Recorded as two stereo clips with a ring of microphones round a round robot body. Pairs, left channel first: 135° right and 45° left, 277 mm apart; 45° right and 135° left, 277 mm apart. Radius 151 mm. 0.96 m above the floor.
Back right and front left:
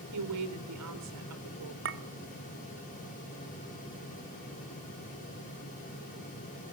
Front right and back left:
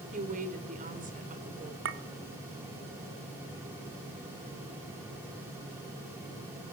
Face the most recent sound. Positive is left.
turn(degrees=90)